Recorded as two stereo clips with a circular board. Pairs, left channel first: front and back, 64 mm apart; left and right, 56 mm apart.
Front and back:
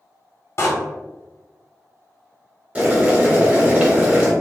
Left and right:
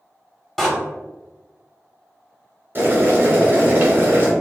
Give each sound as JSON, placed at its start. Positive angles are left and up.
{"t": 0.6, "sound": "a door slam", "azimuth_deg": 0, "distance_m": 1.0}
{"t": 2.8, "sound": "boiling", "azimuth_deg": -115, "distance_m": 1.3}